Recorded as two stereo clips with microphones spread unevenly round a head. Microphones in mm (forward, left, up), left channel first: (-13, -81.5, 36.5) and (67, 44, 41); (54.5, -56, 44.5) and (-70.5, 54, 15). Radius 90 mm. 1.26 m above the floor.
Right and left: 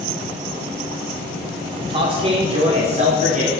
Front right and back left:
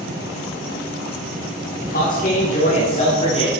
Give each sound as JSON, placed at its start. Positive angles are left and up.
{"t": 1.8, "sound": "a man speaking", "azimuth_deg": 0, "distance_m": 4.0}